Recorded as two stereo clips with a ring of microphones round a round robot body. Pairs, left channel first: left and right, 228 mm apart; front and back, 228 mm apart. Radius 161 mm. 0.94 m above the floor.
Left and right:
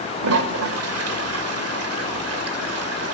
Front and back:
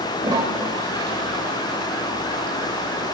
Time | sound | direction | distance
0.2 | a toilet flushing | 100° right | 1.9 m